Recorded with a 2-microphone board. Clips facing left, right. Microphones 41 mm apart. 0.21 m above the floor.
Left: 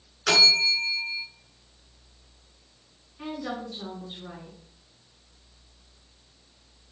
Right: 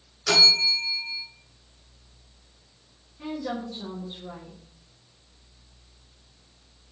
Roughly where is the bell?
Left.